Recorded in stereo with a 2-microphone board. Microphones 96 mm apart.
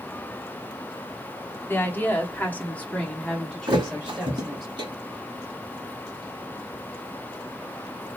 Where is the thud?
60° right (ahead or behind), 2 m.